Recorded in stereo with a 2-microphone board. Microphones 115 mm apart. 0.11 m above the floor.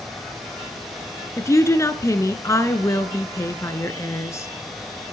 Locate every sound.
1.4 s a woman speaking: 25° left (ahead or behind), 1.1 m